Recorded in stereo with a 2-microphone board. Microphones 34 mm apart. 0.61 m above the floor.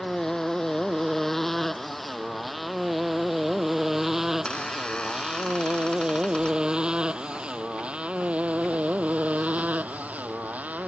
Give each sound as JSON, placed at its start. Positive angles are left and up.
{"t": 0.0, "sound": "a motorcycle", "side_deg": 15}
{"t": 4.5, "sound": "a squeak", "side_deg": 30}